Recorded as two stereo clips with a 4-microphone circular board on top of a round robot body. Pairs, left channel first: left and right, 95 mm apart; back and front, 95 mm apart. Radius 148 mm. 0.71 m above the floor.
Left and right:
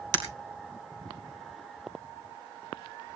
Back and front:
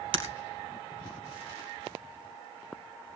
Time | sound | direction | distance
0.1 | breaking glass | 40° right | 2 m